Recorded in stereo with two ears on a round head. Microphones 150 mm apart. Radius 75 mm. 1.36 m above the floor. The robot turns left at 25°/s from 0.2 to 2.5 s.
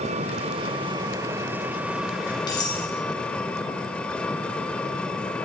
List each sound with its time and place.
0.0 s an engine running: 130° right, 1.7 m; by 5.5 s 170° left, 1.7 m
2.5 s cutlery clinking: 25° left (ahead or behind), 7.5 m